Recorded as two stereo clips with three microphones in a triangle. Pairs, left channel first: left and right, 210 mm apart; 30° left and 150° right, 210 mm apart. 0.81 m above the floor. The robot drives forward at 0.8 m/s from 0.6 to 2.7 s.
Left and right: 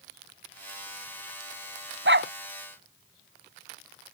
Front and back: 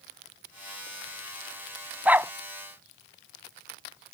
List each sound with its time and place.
2.0 s a dog barking: 65° right; by 2.3 s 70° right